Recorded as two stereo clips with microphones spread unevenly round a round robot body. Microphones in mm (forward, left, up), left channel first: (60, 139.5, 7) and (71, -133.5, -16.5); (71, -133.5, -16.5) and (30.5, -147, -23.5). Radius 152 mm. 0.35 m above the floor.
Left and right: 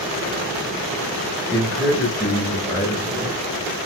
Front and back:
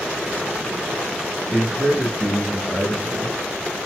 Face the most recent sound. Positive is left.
turn(degrees=-170)